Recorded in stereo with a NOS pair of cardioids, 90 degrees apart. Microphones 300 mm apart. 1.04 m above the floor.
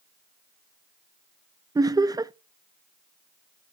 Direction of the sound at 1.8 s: 15° right.